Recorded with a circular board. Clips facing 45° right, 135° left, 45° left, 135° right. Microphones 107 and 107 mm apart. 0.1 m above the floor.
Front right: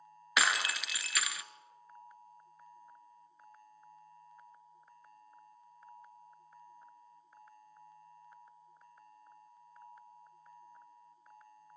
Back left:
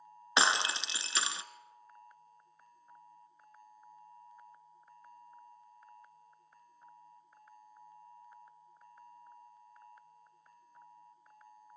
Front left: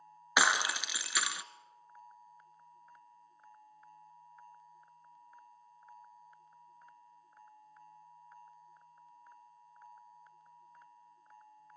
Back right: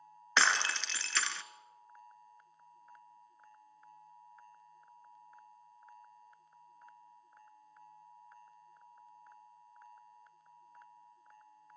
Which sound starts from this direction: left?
Breaking glass, at 0.4 s.